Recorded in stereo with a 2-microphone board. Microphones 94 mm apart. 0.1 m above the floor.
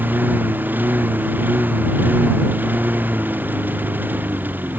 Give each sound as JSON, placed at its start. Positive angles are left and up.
{"t": 0.0, "sound": "a lawn mower", "side_deg": -20}